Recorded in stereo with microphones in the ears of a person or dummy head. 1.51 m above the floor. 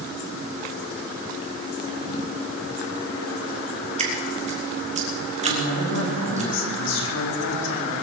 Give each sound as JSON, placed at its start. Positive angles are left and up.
{"t": 4.0, "sound": "dripping", "side_deg": -35, "distance_m": 2.5}
{"t": 5.4, "sound": "a woman speaking", "side_deg": 75, "distance_m": 4.0}